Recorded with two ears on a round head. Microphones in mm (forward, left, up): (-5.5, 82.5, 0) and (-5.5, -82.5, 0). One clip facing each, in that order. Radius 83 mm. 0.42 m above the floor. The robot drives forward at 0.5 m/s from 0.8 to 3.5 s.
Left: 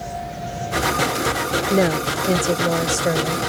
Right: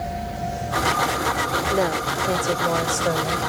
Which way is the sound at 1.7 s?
30° left (ahead or behind).